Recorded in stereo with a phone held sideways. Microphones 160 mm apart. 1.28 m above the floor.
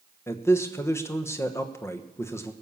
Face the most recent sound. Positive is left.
turn(degrees=15)  # may be behind; listen again after turning